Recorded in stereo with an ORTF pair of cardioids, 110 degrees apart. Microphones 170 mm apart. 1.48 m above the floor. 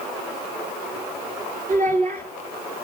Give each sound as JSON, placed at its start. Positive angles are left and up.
{"t": 1.7, "sound": "a child speaking", "azimuth_deg": -55, "distance_m": 2.5}